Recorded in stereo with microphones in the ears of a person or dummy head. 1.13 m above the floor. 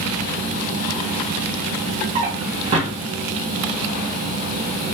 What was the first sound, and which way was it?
A drawer, 30° right (ahead or behind).